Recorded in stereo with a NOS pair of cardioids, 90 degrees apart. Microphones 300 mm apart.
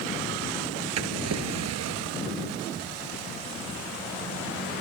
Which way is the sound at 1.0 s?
60° right.